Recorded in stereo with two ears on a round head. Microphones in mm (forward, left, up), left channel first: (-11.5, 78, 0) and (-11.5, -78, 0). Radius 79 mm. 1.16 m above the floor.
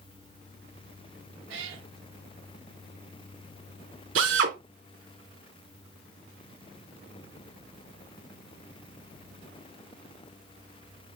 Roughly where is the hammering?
I don't hear hammering.